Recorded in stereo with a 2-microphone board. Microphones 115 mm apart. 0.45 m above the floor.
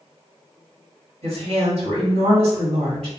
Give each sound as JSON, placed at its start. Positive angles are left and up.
{"t": 1.2, "sound": "a woman speaking", "side_deg": -65, "distance_m": 1.8}